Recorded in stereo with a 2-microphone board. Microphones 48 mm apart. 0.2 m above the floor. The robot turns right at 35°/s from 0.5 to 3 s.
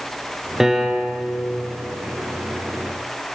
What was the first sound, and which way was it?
A piano, 10° right (ahead or behind).